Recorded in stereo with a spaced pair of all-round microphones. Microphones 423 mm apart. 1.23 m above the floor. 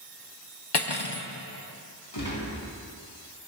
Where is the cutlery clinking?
65° left (ahead or behind), 1.1 m.